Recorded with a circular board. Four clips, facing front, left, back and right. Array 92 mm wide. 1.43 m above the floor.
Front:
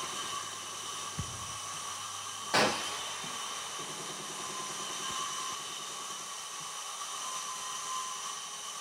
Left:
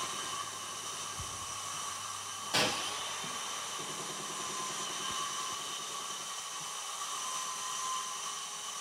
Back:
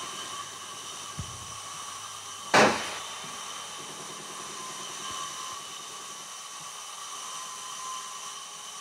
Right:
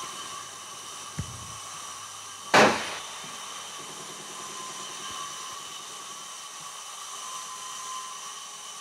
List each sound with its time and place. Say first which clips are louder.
1.2 s a thud: right 2 dB, even; 85° right
2.5 s a gunshot: right 15 dB, back 8 dB; 120° right